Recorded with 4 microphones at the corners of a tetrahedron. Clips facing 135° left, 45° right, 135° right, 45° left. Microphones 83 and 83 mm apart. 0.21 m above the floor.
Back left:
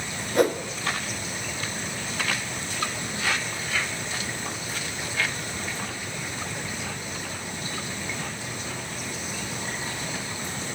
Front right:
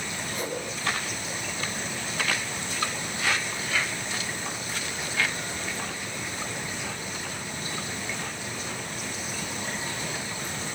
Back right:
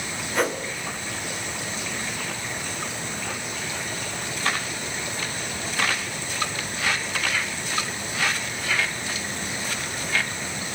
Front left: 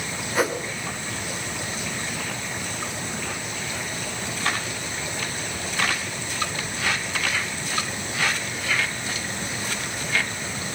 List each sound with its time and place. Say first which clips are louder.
0.3 s a whoosh: back left 12 dB, front left 1 dB; 130° left, 2 m